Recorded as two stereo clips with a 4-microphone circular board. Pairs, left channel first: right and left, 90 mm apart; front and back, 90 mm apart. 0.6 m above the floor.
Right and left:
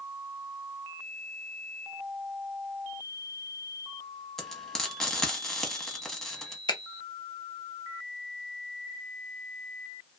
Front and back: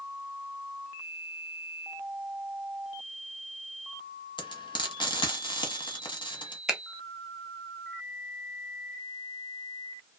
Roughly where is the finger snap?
Right.